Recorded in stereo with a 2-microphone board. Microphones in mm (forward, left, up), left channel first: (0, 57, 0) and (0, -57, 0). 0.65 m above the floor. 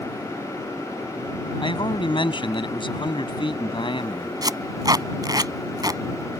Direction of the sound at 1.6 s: 45° left (ahead or behind).